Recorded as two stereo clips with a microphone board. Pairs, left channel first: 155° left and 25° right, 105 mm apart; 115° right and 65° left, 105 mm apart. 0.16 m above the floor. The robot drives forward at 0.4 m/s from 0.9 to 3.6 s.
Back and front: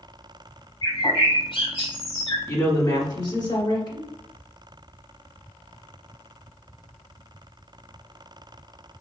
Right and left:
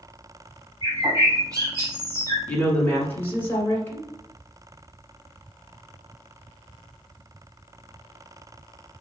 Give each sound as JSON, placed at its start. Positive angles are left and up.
{"t": 0.8, "sound": "a bird", "azimuth_deg": 120, "distance_m": 1.5}
{"t": 2.5, "sound": "a woman speaking", "azimuth_deg": -175, "distance_m": 1.2}